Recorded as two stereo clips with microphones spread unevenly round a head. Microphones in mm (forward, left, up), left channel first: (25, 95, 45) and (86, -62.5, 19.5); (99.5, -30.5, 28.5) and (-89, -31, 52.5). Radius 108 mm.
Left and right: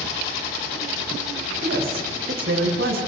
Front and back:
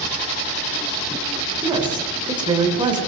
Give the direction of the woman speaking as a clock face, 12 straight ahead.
4 o'clock.